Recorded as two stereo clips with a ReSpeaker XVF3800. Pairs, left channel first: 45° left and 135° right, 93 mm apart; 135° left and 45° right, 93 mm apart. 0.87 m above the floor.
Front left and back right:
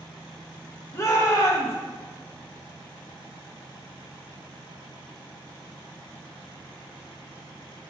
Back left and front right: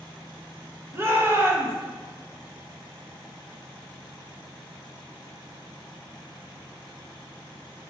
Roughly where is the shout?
Ahead.